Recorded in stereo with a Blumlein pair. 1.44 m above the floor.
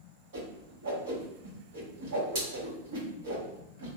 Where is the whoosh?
60° right, 1.5 m.